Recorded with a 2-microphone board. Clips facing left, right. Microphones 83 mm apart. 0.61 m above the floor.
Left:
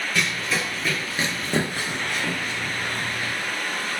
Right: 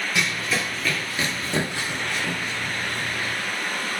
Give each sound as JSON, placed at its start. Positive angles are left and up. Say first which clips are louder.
{"t": 0.1, "sound": "running footsteps", "louder": "even", "side_deg": -10, "distance_m": 0.8}